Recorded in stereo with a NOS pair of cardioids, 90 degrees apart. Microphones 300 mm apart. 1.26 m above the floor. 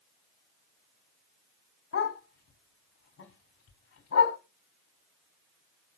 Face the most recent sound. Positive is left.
turn(degrees=50)